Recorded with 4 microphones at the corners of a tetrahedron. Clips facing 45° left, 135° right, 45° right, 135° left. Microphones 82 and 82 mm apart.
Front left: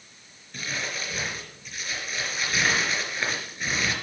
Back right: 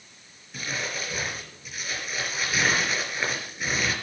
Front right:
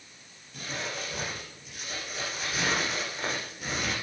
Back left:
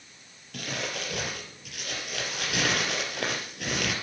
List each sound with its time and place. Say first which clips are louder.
0.5 s crumpling: back right 1 dB, back left 2 dB; 140° left, 3.5 m